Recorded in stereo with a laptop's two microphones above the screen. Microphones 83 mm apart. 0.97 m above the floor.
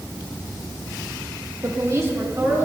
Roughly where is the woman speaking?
Right.